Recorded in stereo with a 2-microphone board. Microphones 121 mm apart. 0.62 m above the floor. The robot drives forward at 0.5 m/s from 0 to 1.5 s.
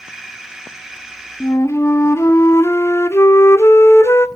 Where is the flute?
25° left (ahead or behind), 0.7 m.